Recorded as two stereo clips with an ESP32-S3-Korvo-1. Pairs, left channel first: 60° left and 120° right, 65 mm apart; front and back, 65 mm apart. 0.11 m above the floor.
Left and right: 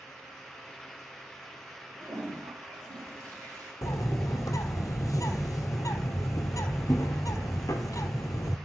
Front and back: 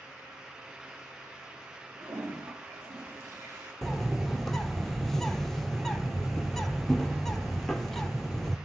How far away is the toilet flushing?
About 6 m.